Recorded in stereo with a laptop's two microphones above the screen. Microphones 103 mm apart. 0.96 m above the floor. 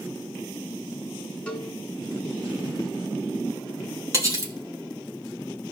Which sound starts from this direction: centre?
A cowbell, at 1.5 s.